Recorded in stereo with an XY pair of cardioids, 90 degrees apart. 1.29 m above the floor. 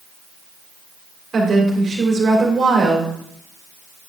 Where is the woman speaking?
40° right, 3 m.